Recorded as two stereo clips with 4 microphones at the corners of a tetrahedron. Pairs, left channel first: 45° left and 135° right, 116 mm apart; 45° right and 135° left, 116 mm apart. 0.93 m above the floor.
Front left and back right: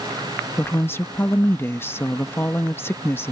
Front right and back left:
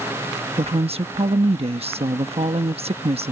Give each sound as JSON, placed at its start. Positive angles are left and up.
{"t": 0.6, "sound": "a woman speaking", "azimuth_deg": 115}